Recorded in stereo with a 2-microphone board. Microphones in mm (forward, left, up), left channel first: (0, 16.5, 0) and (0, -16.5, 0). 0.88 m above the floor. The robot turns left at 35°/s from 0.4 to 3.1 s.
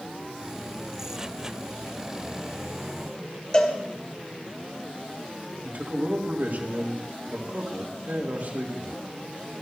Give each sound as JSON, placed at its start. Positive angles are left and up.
{"t": 3.5, "sound": "a cowbell", "side_deg": 30, "distance_m": 2.5}
{"t": 5.6, "sound": "a man speaking", "side_deg": -70, "distance_m": 4.0}